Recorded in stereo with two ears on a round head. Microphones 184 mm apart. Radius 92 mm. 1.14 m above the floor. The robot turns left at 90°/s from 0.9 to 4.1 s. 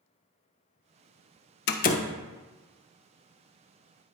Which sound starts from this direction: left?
A door slam, at 1.7 s.